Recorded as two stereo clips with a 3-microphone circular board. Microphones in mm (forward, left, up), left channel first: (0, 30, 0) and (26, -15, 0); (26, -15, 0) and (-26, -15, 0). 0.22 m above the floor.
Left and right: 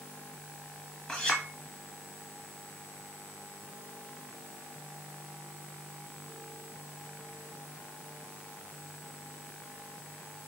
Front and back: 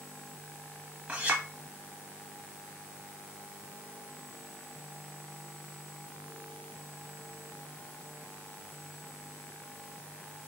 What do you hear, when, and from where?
1.1 s a clink: 175° left, 0.7 m